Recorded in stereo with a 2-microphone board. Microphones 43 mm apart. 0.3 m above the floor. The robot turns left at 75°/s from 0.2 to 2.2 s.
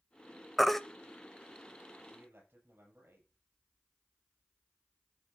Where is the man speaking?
65° right (ahead or behind), 6.5 m; by 3.3 s 60° right (ahead or behind), 6.5 m.